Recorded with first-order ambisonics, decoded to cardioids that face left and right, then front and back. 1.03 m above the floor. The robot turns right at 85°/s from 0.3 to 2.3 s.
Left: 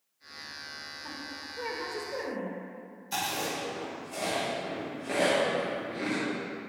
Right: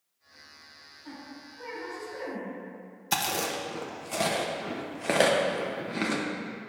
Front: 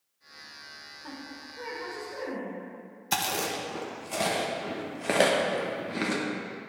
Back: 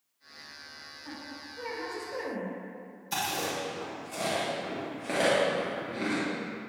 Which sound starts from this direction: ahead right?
Chewing, at 3.1 s.